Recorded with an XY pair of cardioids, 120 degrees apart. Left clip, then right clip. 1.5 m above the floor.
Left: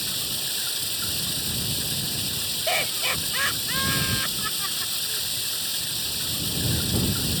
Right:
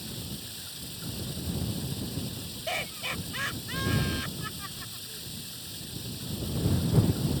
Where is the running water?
70° left.